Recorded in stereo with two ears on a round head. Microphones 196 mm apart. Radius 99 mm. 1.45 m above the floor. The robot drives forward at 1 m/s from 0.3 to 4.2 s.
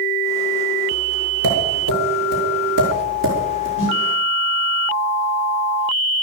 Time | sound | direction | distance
1.4 | tapping | 75° right (ahead or behind) | 6 m
3.8 | a snare drum | 30° right (ahead or behind) | 7.5 m